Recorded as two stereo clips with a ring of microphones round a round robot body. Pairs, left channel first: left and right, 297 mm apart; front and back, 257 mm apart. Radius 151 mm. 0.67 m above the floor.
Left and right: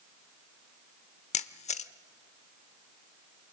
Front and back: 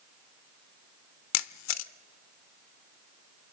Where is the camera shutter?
20° left, 0.8 m.